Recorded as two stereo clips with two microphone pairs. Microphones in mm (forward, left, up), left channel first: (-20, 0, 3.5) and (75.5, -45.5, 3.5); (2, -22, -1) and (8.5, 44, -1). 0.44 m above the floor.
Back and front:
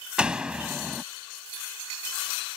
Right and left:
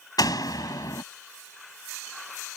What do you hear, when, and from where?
0.2 s a door slam: 105° right